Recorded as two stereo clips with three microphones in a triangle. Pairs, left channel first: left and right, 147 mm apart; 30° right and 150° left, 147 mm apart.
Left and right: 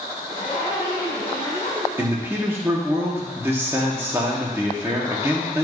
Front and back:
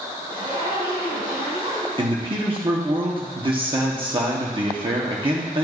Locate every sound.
0.3 s a zipper: 130° left, 3 m
2.0 s a man speaking: 160° right, 1.3 m